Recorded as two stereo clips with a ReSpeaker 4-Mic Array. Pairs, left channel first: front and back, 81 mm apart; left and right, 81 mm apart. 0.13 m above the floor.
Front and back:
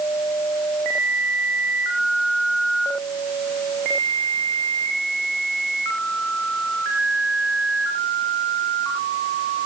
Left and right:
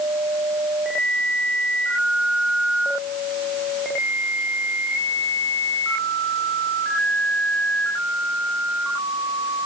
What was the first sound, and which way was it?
Only background noise.